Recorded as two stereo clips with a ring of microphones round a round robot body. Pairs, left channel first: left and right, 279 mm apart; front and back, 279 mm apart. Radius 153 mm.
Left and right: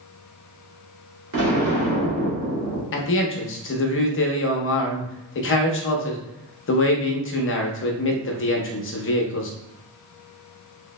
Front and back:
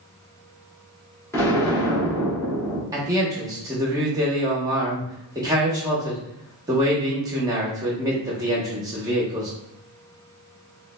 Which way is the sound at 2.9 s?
105° left.